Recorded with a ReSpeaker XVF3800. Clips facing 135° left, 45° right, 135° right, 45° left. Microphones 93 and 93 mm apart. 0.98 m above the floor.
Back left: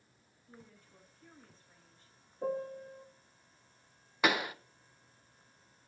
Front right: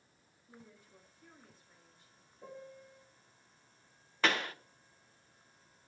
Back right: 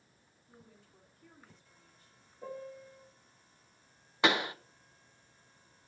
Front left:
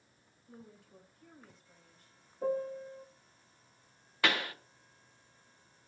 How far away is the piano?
About 0.5 m.